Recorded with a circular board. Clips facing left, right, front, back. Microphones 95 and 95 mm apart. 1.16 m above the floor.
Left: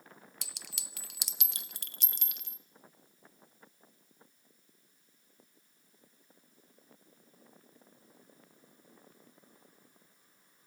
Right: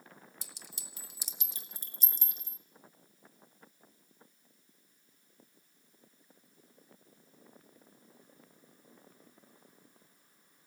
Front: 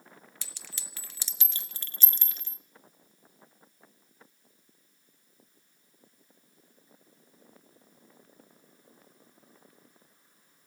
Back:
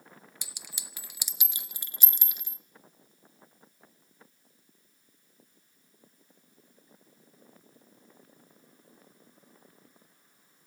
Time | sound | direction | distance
0.4 | a clink | 105° left | 0.5 m